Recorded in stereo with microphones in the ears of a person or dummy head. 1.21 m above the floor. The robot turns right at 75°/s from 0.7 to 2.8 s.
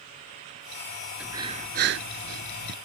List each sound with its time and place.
1.2 s breathing: 170° right; by 2.8 s 55° right